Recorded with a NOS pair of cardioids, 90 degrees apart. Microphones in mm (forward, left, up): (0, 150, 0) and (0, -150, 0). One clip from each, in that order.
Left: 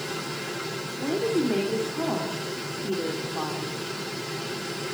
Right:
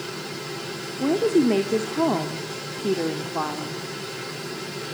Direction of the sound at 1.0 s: 50° right.